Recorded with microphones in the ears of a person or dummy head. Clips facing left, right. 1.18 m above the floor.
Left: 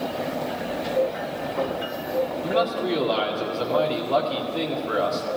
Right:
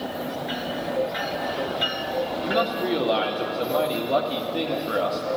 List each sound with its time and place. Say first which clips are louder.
2.4 s a man speaking: left 1 dB; 20° right (ahead or behind), 1.9 m